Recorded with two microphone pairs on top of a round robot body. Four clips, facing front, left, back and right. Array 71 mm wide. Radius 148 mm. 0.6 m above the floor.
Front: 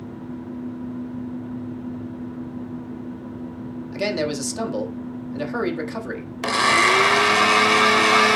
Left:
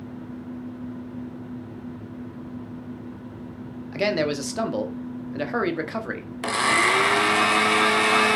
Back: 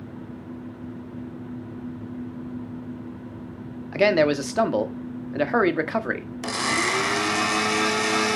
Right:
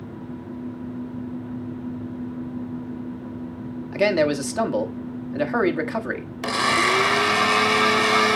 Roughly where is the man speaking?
Behind.